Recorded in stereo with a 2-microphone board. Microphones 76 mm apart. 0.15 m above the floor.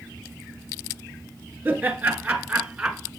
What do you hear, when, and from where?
1.6 s laughter: 25° right (ahead or behind), 2 m; by 3.1 s 5° right (ahead or behind), 1.3 m